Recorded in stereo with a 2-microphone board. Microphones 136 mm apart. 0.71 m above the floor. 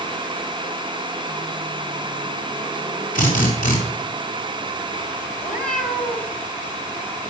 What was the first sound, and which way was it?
A drill, 75° left (ahead or behind).